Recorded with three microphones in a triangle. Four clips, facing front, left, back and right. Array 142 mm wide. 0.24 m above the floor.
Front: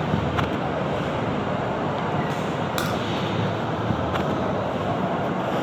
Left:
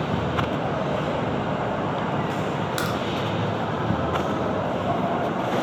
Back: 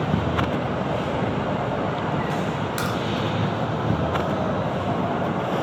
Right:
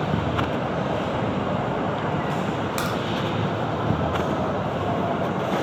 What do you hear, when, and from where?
2.8 s a crack: 15° right, 0.9 m